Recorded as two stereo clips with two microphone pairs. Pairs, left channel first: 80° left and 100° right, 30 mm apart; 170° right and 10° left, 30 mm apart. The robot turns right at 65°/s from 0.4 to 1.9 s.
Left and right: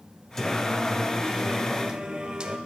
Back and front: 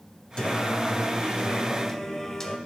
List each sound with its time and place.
0.4 s singing: 150° left, 0.6 m; by 2.6 s 115° right, 0.6 m